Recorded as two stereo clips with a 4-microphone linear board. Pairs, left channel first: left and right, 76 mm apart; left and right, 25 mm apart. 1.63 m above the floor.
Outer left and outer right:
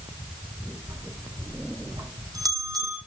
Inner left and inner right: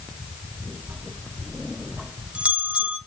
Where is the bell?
65° right (ahead or behind), 2.5 m.